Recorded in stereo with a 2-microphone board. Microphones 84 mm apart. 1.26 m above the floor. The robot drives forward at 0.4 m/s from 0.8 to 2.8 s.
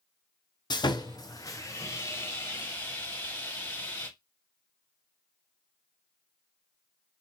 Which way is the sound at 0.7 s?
55° left (ahead or behind).